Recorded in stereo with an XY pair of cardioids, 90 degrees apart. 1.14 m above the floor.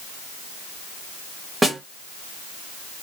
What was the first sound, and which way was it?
A snare drum, 15° right.